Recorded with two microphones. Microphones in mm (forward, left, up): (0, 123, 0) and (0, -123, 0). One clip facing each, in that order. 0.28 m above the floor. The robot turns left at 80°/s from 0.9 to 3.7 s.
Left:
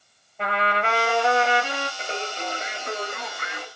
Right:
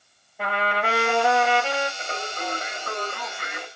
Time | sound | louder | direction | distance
0.4 | a trumpet | even | 175° right | 1.5 m
2.0 | singing | left 1 dB | 25° left (ahead or behind) | 1.2 m